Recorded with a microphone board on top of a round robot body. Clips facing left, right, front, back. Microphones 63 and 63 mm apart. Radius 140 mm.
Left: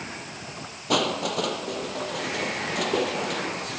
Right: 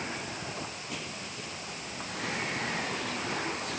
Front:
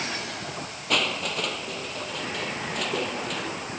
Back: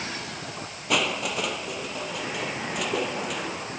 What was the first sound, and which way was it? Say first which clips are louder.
Crushing: left 15 dB, back 1 dB; 95° left.